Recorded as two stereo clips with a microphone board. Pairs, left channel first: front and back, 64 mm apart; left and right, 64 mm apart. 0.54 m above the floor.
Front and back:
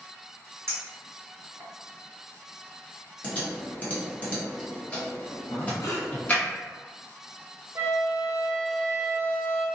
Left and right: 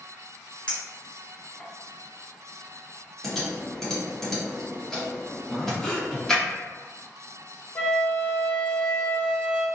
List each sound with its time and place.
0.7 s a clink: 160° left, 1.0 m
3.2 s typing on a keyboard: 15° left, 1.0 m
5.5 s breathing: 15° left, 0.7 m
7.8 s a flute: 145° left, 0.7 m